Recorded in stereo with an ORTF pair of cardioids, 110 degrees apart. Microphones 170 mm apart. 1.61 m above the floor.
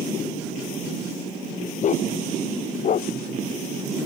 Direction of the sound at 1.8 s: 45° left.